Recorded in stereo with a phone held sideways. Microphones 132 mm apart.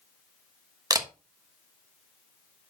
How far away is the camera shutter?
About 1.0 m.